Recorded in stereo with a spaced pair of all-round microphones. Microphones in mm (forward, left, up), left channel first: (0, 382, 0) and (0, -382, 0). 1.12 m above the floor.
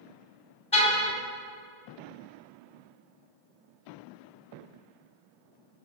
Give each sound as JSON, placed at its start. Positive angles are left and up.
{"t": 0.7, "sound": "a car horn", "side_deg": 45, "distance_m": 3.5}